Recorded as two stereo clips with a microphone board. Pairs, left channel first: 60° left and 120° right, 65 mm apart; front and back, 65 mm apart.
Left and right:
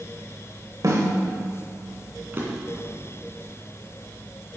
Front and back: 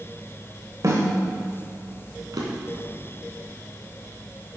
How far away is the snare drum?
About 1.7 m.